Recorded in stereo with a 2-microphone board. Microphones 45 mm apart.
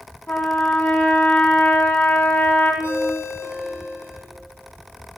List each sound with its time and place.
0.3 s a trumpet: 35° left (ahead or behind), 1.7 m
2.8 s a ringtone: 75° left (ahead or behind), 4 m